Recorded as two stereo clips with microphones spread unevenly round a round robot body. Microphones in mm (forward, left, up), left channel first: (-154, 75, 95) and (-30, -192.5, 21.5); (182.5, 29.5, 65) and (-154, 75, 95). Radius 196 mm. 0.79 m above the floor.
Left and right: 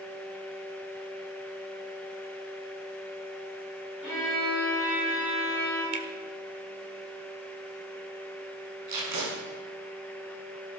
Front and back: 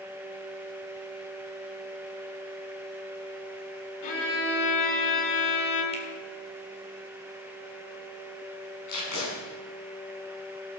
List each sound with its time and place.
4.0 s a violin: 20° left, 5 m
5.9 s a finger snap: 80° right, 1.9 m
8.9 s tape being pulled: 55° right, 6 m